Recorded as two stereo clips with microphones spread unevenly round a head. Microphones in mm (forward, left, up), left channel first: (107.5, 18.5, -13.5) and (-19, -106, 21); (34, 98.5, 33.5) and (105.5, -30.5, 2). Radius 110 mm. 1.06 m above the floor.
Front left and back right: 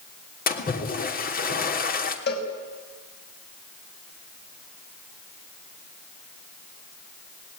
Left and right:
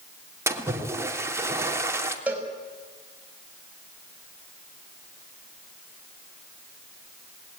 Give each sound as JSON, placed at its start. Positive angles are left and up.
{"t": 0.5, "sound": "a splash", "azimuth_deg": 10, "distance_m": 3.0}
{"t": 2.3, "sound": "a cowbell", "azimuth_deg": 20, "distance_m": 5.5}